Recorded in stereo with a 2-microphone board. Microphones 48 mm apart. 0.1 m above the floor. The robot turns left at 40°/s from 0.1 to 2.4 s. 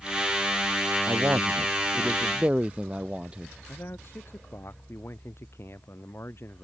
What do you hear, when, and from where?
1.1 s a man speaking: 100° right; by 3.5 s 155° right
3.7 s a man speaking: 55° left (ahead or behind)